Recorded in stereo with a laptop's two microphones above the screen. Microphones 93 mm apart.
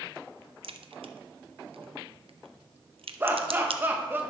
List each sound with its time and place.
0.6 s a crack: 80° right, 0.6 m
3.2 s laughter: 25° right (ahead or behind), 1.3 m